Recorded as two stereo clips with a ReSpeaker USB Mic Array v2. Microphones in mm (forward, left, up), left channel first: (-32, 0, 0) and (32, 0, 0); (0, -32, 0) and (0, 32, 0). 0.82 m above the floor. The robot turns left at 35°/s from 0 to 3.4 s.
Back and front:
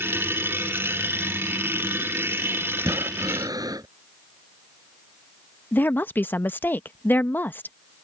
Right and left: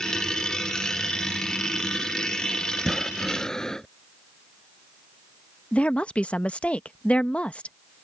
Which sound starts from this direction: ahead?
Breathing, at 2.8 s.